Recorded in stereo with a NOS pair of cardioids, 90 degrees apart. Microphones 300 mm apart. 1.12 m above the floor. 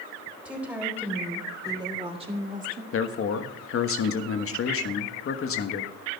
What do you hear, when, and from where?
0.5 s a woman speaking: 5° right, 4 m; by 2.8 s 30° right, 2 m
2.9 s a man speaking: 45° left, 1.3 m